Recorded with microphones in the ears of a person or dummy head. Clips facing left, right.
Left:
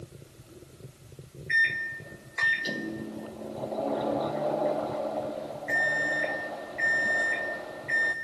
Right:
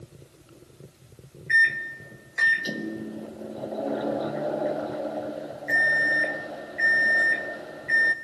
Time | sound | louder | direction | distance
1.5 | a microwave | right 5 dB | 15° right (ahead or behind) | 0.5 m